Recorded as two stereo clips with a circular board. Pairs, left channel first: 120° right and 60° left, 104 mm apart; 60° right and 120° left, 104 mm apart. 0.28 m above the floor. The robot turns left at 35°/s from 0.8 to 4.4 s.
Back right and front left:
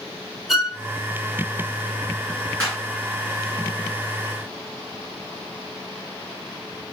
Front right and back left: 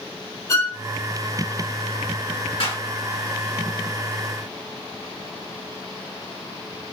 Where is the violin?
30° right, 1.3 m.